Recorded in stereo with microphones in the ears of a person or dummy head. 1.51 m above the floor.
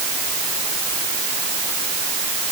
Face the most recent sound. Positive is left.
No sound to turn to.